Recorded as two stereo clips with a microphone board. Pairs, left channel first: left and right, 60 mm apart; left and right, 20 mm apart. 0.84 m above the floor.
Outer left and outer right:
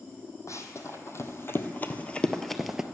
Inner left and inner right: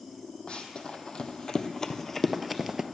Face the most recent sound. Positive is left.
turn(degrees=-15)  # may be behind; listen again after turning